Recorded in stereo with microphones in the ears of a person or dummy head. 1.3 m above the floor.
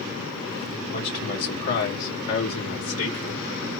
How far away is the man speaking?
About 1.6 m.